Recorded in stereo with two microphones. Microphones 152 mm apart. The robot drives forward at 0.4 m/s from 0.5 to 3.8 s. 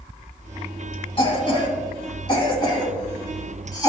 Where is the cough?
35° left (ahead or behind), 2.0 m; by 3.9 s 25° left (ahead or behind), 2.5 m.